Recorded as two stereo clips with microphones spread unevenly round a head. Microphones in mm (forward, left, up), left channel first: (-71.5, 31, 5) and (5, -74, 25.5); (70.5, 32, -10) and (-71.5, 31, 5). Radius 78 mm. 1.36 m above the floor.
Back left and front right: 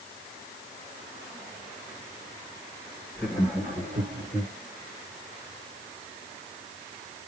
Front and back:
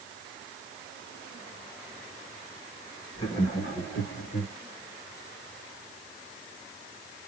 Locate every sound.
3.1 s laughter: 45° left, 3.5 m; by 4.5 s 10° left, 3 m